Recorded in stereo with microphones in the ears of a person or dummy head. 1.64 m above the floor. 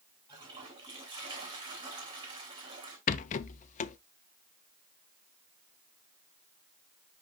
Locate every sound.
0.3 s a toilet flushing: 25° right (ahead or behind), 2.5 m
3.1 s a rattle: 35° left (ahead or behind), 0.5 m